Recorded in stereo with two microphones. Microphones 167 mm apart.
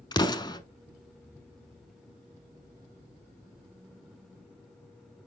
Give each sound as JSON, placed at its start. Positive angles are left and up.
{"t": 0.1, "sound": "an explosion", "side_deg": 25, "distance_m": 0.8}